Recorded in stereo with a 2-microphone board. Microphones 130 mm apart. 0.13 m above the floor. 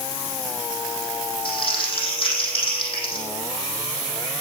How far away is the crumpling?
About 6 m.